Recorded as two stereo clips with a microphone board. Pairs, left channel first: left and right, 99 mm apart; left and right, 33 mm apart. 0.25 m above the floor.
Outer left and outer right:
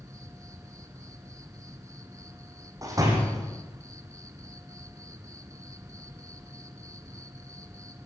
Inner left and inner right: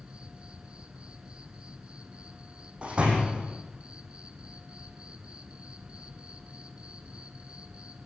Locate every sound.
0.0 s an insect: 35° right (ahead or behind), 1.6 m
2.8 s a door slam: 35° right (ahead or behind), 6.5 m